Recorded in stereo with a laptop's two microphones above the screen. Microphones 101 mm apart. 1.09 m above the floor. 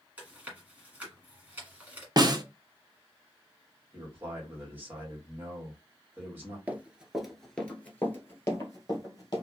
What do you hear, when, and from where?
0.2 s chewing: 15° right (ahead or behind), 1.6 m
2.2 s a snare drum: 40° right (ahead or behind), 0.7 m
3.9 s a man speaking: 20° right (ahead or behind), 1.6 m
6.7 s running footsteps: 20° right (ahead or behind), 1.1 m; by 9.4 s 40° left (ahead or behind), 1.8 m